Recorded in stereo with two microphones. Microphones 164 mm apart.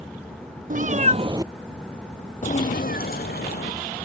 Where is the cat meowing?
55° right (ahead or behind); by 4.0 s 75° left (ahead or behind).